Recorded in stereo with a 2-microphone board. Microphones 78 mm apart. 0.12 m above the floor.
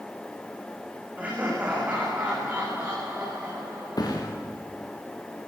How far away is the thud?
About 4.5 m.